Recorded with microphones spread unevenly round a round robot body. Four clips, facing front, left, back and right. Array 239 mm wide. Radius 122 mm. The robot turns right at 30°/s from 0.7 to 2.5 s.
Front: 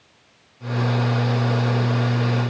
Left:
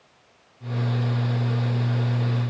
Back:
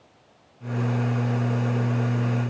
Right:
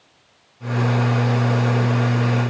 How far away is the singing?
No singing in this recording.